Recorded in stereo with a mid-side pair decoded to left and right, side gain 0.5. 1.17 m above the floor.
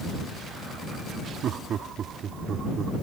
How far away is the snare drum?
I don't hear a snare drum.